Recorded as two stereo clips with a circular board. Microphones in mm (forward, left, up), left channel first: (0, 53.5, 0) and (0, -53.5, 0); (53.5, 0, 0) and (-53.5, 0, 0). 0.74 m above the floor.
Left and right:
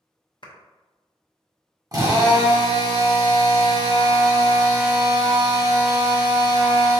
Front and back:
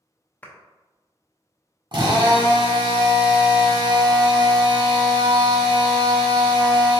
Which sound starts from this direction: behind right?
A drill, at 1.9 s.